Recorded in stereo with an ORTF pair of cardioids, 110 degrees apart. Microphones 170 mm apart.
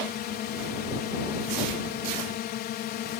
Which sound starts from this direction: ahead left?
A drone, at 0.0 s.